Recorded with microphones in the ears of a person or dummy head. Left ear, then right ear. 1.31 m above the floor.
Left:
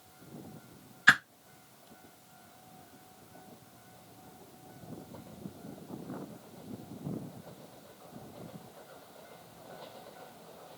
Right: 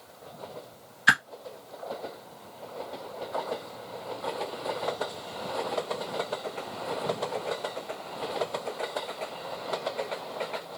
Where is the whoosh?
5° left (ahead or behind), 0.6 m.